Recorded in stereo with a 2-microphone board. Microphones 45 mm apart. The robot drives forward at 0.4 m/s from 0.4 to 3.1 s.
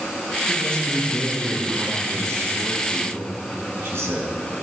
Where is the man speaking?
65° right (ahead or behind), 4.5 m; by 4.3 s 75° right (ahead or behind), 4 m.